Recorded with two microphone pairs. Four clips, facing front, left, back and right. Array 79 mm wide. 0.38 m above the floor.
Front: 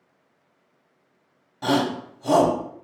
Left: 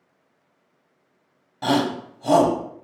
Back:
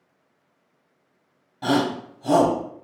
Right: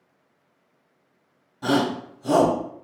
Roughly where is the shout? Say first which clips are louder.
Left 1 dB, even; left.